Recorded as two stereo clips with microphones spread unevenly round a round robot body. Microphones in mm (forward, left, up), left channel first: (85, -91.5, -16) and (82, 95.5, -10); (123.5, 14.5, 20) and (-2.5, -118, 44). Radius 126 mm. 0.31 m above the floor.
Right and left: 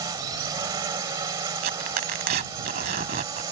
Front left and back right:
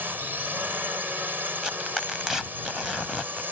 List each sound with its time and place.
0.0 s a drone: 140° left
1.6 s tearing paper: 135° left